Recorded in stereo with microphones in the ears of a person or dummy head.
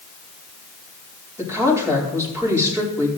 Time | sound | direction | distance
1.4 | a woman speaking | 20° right (ahead or behind) | 5 m